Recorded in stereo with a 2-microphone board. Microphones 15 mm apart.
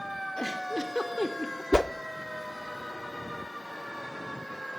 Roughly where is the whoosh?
Left.